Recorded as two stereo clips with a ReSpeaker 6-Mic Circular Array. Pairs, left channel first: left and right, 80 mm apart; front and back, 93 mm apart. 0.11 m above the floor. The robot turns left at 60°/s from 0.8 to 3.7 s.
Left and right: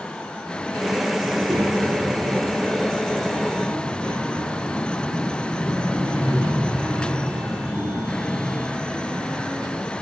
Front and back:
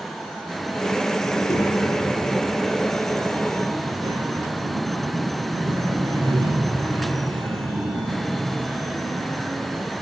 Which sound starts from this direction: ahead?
A child speaking, at 1.2 s.